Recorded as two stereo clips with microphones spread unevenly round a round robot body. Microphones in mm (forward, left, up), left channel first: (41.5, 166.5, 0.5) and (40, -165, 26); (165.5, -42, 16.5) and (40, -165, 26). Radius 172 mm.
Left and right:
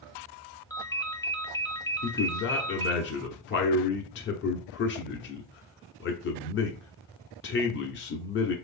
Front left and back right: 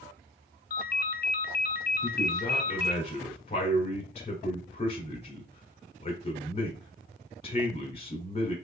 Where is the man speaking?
70° left, 0.9 m.